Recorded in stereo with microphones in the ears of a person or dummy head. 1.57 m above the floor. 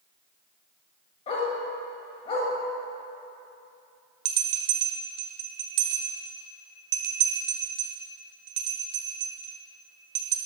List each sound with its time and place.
1.3 s a dog barking: 35° left (ahead or behind), 1.8 m
4.2 s a bell: 65° right (ahead or behind), 1.3 m